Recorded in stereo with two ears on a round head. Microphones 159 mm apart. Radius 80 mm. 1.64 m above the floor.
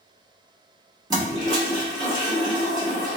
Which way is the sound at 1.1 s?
20° right (ahead or behind).